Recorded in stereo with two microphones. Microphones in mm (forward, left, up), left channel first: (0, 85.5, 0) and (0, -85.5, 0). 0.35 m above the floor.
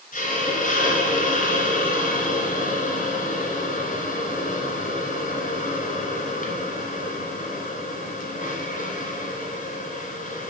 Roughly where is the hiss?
Left.